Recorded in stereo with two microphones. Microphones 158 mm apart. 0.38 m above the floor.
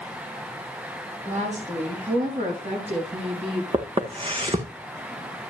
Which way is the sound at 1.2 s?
50° right (ahead or behind).